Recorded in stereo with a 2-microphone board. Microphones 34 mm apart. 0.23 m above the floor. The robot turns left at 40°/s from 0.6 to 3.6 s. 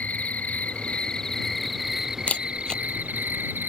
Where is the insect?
45° left; by 3.7 s 75° right.